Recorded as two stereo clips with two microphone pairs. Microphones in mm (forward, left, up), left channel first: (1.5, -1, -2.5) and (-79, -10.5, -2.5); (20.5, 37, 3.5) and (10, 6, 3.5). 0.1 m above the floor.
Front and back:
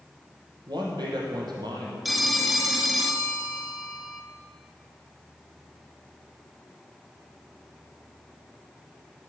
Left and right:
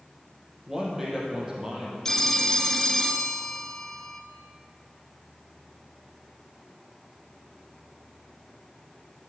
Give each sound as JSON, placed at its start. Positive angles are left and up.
{"t": 0.7, "sound": "a man speaking", "azimuth_deg": 175, "distance_m": 3.0}
{"t": 2.0, "sound": "a phone ringing", "azimuth_deg": 110, "distance_m": 0.7}